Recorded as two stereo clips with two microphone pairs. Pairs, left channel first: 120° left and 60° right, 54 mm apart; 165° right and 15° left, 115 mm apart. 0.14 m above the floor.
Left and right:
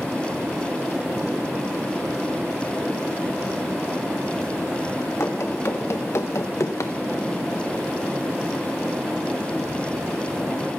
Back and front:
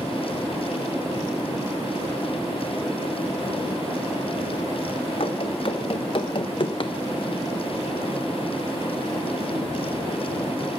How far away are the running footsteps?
About 1.5 m.